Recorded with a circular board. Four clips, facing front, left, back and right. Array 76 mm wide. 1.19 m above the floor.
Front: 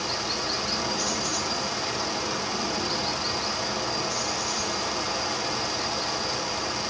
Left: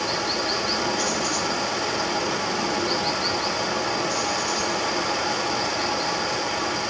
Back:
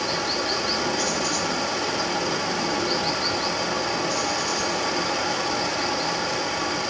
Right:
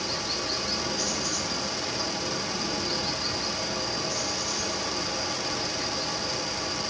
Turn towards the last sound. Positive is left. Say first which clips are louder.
# left 7 dB, back 4 dB
turn(degrees=130)